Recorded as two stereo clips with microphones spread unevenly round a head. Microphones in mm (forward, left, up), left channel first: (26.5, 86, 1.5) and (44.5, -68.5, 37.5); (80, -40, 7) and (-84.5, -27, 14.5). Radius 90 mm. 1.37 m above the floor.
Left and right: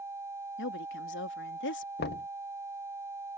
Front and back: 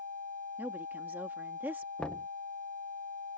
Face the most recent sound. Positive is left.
turn(degrees=80)